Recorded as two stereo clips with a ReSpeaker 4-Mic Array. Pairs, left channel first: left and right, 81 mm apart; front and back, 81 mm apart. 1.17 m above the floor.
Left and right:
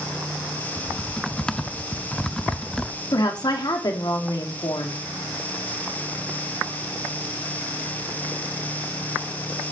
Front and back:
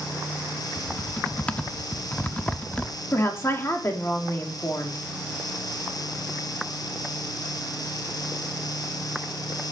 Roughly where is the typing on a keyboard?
Ahead left.